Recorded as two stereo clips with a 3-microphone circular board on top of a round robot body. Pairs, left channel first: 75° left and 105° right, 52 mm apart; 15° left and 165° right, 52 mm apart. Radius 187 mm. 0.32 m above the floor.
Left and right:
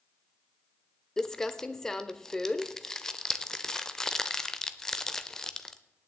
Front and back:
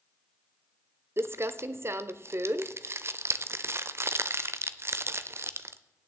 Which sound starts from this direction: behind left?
Crumpling, at 1.2 s.